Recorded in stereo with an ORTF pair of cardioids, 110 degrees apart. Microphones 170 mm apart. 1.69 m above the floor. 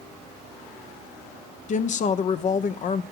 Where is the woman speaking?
45° left, 1.1 m.